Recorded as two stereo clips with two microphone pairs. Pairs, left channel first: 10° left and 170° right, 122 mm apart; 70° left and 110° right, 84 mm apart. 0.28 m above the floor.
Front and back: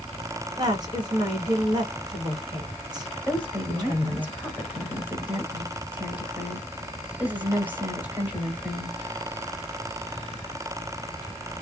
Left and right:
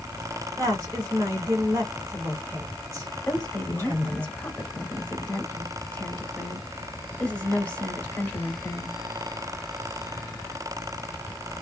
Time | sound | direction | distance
0.6 | a woman speaking | 140° right | 1.9 m
3.3 | a woman speaking | 130° left | 1.5 m